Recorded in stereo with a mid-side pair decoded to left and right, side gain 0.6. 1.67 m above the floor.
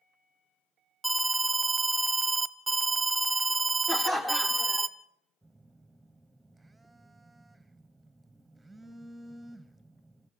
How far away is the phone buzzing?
About 1.0 m.